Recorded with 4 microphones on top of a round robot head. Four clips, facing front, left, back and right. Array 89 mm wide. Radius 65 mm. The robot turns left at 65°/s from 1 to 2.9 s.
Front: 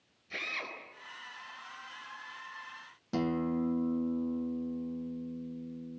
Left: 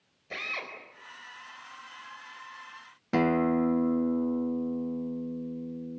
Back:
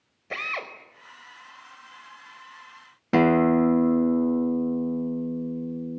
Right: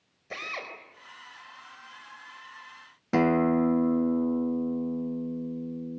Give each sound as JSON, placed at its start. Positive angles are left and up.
{"t": 0.3, "sound": "a drill", "azimuth_deg": -170, "distance_m": 4.5}
{"t": 3.1, "sound": "a guitar", "azimuth_deg": -170, "distance_m": 0.5}